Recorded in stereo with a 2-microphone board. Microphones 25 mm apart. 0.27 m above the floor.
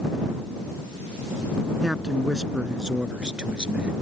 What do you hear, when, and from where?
1.8 s a man speaking: 15° right (ahead or behind); by 3.9 s 40° right (ahead or behind)